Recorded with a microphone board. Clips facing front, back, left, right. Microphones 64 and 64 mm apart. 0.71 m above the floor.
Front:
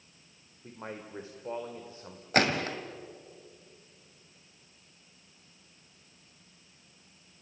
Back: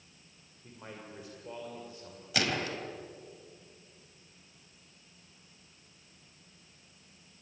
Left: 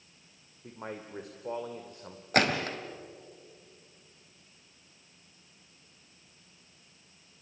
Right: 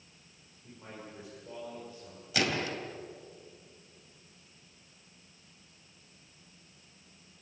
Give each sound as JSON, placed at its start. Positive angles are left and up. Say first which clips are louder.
{"t": 0.6, "sound": "a man speaking", "louder": "front 5 dB, left 6 dB", "azimuth_deg": 60, "distance_m": 2.5}
{"t": 2.3, "sound": "a gunshot", "louder": "front 5 dB, left 5 dB", "azimuth_deg": 50, "distance_m": 2.5}